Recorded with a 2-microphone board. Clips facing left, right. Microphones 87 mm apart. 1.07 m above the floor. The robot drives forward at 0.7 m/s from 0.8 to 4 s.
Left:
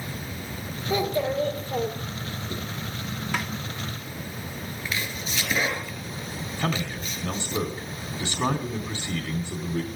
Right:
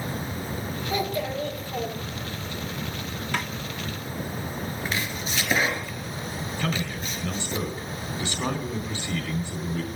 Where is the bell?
I don't hear a bell.